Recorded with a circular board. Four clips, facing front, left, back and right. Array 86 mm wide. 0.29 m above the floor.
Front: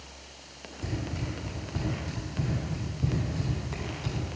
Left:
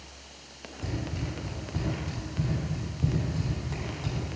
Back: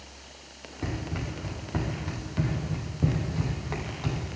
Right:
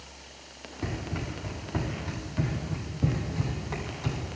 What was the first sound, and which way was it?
Running footsteps, 145° right.